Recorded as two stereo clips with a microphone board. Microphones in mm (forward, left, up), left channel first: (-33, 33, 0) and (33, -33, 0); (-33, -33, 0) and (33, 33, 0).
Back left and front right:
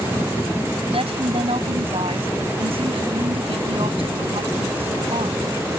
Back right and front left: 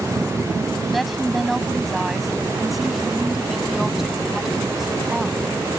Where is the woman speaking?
45° right; by 5.5 s 40° right.